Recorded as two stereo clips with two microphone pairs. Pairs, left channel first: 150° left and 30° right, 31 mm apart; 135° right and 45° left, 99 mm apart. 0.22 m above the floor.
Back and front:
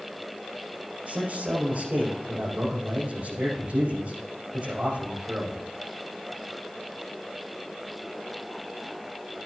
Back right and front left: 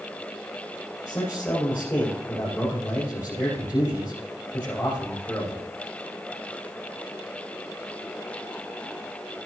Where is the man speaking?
65° right, 5.5 m.